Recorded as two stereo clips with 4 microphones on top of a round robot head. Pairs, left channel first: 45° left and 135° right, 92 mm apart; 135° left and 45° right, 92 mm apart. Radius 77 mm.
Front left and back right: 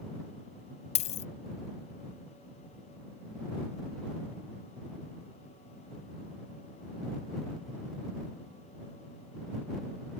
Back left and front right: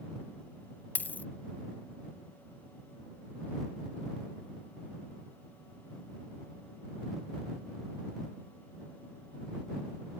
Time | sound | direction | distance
0.9 | a dropped coin | 60° left | ?